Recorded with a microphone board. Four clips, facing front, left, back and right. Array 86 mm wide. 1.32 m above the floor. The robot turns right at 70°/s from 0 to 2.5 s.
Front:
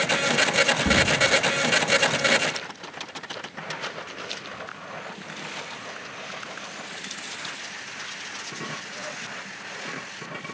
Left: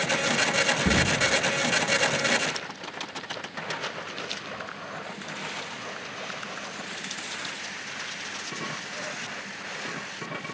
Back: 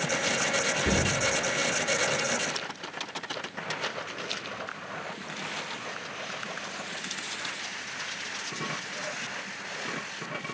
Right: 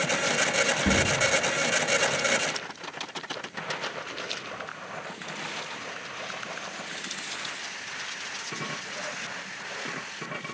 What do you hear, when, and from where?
0.8 s a door slam: 30° left, 8.5 m; by 1.1 s 50° left, 8.5 m